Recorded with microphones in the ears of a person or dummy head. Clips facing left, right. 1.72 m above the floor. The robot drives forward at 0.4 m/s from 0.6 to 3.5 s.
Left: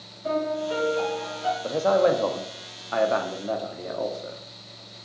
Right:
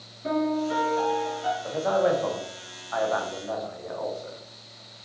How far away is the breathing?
No breathing in this recording.